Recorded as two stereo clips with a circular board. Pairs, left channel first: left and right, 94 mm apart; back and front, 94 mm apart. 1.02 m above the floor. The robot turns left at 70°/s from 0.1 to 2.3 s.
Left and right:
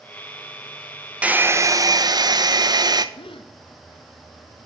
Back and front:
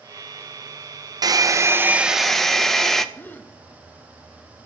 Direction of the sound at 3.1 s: 110° left.